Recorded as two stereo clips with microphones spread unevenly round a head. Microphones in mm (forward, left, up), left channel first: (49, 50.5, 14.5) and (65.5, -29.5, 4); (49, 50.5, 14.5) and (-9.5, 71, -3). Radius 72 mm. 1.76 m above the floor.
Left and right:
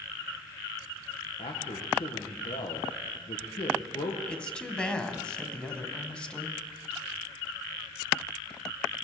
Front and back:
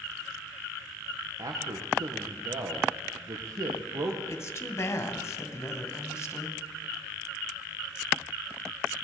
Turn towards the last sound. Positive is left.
turn(degrees=25)